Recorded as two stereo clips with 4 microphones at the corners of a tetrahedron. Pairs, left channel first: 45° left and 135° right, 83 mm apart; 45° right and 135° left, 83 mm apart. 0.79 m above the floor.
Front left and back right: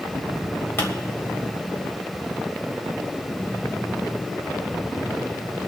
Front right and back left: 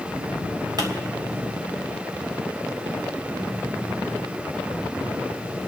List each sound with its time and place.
0.8 s a pop: 105° left, 3 m